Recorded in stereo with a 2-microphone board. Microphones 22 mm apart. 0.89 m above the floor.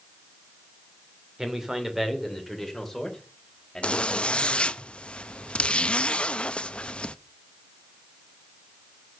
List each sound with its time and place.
1.4 s a man speaking: 25° right (ahead or behind), 2.5 m; by 4.8 s 25° left (ahead or behind), 4.5 m
3.8 s a zipper: 50° left (ahead or behind), 0.7 m